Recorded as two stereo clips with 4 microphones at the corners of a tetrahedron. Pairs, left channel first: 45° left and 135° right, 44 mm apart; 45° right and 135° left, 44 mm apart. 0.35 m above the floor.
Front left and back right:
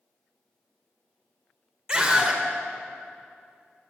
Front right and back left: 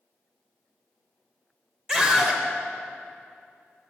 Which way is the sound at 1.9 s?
175° right.